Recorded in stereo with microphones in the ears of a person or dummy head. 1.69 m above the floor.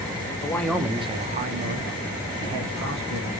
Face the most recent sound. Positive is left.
turn(degrees=-75)  # may be behind; listen again after turning